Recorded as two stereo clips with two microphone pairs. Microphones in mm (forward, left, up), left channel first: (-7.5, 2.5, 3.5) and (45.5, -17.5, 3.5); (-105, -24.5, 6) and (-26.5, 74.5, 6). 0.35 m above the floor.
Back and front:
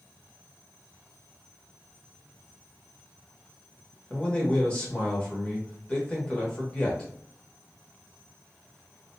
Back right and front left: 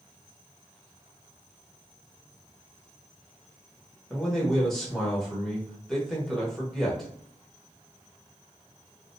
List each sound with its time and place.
4.1 s a man speaking: 155° left, 0.9 m